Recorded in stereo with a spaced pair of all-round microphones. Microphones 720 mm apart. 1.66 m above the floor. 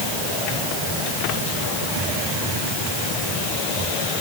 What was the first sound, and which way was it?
Only background noise.